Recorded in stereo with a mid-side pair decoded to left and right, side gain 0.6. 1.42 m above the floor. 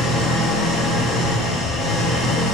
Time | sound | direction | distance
0.0 | an engine running | 60° left | 1.1 m